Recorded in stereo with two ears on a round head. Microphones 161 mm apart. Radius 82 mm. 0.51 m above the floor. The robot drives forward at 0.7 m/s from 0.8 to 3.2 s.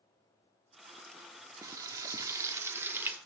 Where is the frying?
20° right (ahead or behind), 0.8 m; by 3.2 s 10° right (ahead or behind), 1.2 m.